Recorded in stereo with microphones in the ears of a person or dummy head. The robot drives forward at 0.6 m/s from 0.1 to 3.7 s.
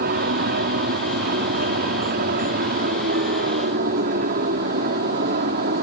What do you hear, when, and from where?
0.0 s an aircraft: 50° right (ahead or behind); by 5.8 s 45° right (ahead or behind)